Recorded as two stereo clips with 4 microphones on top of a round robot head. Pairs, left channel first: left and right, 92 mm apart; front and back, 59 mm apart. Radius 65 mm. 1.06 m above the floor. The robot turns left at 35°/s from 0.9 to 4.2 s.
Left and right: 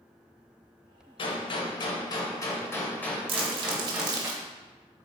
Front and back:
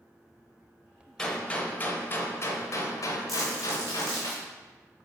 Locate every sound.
1.2 s a gunshot: 80° left, 0.8 m; by 4.3 s 25° right, 0.8 m
3.3 s crumpling: 90° right, 0.6 m; by 4.4 s 125° right, 0.6 m